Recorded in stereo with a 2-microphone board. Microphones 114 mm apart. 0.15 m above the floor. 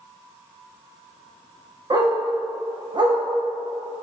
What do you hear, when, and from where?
1.9 s a dog barking: 40° right (ahead or behind), 3 m